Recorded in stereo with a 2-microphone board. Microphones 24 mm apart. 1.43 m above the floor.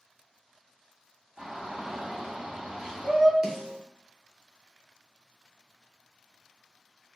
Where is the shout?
45° right (ahead or behind), 1.1 m.